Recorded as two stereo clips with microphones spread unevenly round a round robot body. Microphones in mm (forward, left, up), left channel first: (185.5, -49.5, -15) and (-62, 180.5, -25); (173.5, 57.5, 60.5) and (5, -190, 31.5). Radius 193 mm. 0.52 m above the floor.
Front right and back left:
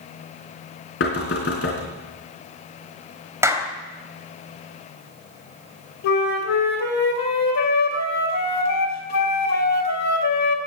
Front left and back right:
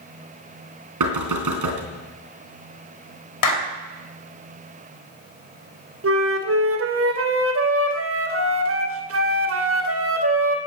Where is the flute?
90° right, 2.5 m.